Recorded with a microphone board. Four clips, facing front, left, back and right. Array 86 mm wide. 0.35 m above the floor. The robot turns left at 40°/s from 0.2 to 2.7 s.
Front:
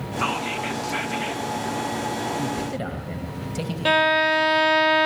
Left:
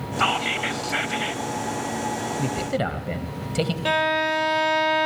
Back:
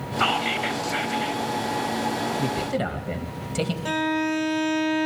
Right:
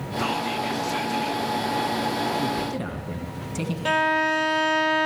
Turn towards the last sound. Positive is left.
turn(degrees=15)